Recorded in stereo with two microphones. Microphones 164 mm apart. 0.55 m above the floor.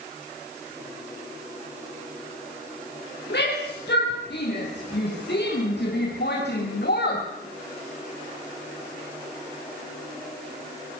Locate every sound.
3.3 s a shout: 85° left, 9 m; by 7.3 s 70° left (ahead or behind), 4 m